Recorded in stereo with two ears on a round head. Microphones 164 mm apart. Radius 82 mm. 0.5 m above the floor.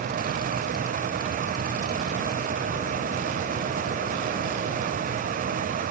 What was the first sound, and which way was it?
Only background noise.